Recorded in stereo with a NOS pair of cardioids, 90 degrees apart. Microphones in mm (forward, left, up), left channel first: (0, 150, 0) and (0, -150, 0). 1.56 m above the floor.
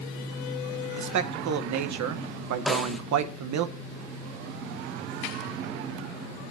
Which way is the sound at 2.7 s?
Straight ahead.